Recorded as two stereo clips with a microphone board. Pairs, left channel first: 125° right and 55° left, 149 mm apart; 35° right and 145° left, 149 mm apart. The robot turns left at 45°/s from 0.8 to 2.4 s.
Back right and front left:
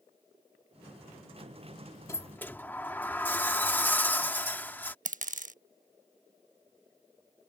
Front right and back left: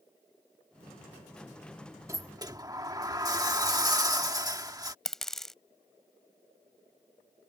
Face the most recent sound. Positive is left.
turn(degrees=55)